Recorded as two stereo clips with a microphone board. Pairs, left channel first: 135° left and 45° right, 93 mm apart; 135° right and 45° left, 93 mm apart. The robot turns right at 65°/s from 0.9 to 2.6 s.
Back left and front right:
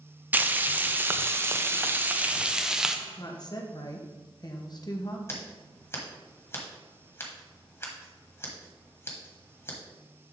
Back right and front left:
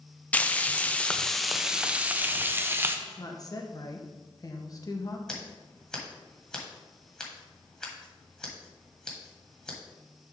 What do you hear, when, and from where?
0.3 s frying: 80° right, 0.5 m; by 3.0 s 30° left, 0.5 m
3.1 s a woman speaking: 175° left, 1.0 m
5.3 s scissors: 150° left, 1.6 m